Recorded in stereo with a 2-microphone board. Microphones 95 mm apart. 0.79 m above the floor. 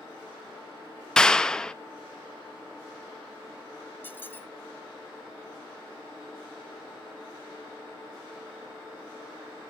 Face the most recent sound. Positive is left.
turn(degrees=20)  # may be behind; listen again after turning